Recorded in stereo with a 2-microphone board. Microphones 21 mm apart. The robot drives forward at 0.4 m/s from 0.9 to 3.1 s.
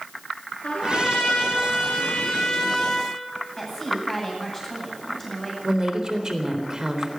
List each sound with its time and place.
0.6 s a trumpet: 65° left (ahead or behind), 5 m; by 3.1 s 70° left (ahead or behind), 4.5 m
3.6 s a woman speaking: 25° left (ahead or behind), 9 m
5.6 s a woman speaking: 40° right (ahead or behind), 4 m